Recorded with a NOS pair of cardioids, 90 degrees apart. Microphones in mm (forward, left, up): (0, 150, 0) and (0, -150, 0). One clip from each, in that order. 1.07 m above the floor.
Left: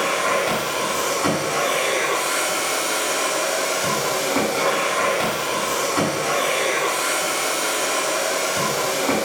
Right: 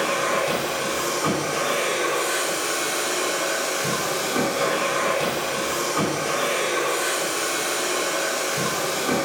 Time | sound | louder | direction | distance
0.0 | a machine running | left 2 dB | 50° left | 5.5 m